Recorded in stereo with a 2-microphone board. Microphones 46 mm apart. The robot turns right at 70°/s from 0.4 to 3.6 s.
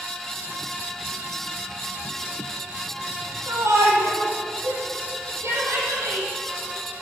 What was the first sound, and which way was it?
A shout, 65° right (ahead or behind).